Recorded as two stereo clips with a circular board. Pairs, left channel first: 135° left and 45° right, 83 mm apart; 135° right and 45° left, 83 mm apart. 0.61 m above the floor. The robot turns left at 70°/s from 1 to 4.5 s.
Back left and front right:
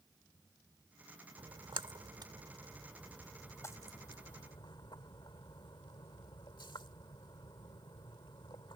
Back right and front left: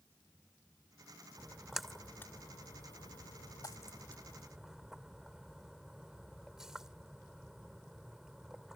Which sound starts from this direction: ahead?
A splash, at 1.4 s.